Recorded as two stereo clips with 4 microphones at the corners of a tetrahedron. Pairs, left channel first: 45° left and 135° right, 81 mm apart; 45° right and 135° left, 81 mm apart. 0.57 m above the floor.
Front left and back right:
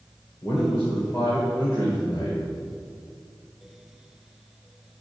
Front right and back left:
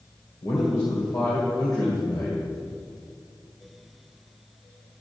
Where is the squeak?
I don't hear a squeak.